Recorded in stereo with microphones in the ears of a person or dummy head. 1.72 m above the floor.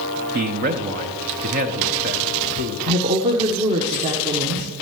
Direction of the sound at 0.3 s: 45° right (ahead or behind).